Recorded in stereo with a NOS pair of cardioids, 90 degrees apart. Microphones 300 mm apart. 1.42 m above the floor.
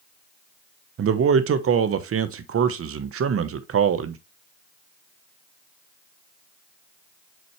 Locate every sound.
1.0 s a man speaking: 50° right, 1.1 m